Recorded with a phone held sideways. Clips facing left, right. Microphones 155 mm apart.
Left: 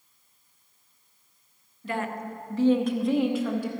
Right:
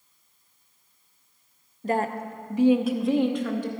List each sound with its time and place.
1.8 s a woman speaking: 45° right (ahead or behind), 0.8 m; by 3.7 s 10° left (ahead or behind), 1.4 m